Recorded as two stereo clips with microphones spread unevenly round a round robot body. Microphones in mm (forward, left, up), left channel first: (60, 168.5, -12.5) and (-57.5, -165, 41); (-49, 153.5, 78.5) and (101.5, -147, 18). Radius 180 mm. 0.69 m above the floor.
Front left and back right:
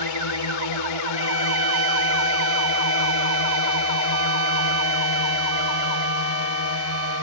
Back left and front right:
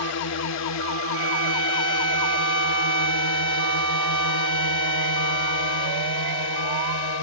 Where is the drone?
75° left; by 7.2 s 110° left.